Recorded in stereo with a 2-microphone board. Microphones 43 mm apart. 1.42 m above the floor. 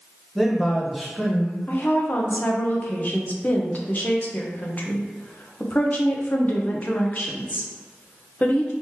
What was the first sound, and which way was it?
A man speaking, centre (ahead or behind).